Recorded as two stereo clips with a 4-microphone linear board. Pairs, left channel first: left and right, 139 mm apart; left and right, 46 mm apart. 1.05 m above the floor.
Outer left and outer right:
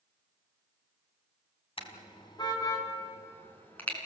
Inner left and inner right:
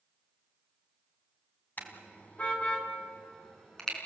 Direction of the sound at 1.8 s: 40° left (ahead or behind).